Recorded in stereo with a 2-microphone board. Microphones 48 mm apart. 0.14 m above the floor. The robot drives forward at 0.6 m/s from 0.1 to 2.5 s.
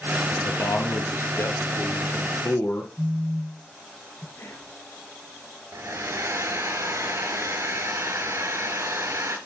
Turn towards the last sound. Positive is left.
turn(degrees=-60)  # may be behind; listen again after turning